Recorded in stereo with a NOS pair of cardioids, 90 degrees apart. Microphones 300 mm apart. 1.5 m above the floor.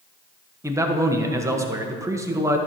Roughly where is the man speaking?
Ahead.